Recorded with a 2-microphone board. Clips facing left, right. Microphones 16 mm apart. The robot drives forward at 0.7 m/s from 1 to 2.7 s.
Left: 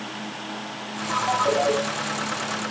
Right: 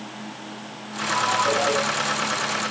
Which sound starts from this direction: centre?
A ringtone, at 1.1 s.